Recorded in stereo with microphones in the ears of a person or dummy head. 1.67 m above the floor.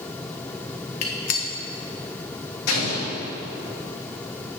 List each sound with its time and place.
1.0 s a gunshot: 50° left (ahead or behind), 0.9 m
2.7 s an explosion: 60° left (ahead or behind), 2 m